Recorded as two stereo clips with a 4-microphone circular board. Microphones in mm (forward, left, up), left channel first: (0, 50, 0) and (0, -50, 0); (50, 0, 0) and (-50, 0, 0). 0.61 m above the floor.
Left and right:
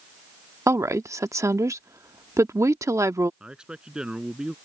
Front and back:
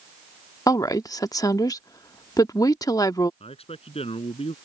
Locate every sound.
0.7 s a woman speaking: 40° right
3.4 s a man speaking: 10° right